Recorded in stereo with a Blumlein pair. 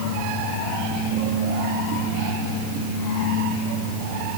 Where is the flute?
I don't hear a flute.